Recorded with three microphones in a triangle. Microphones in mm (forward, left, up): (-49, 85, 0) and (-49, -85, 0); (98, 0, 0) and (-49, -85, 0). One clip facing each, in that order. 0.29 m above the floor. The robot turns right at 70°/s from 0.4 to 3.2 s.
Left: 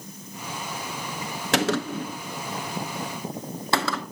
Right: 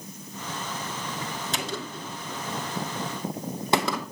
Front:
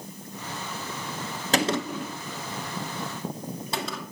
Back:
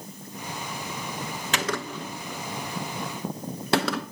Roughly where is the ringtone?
No ringtone in this recording.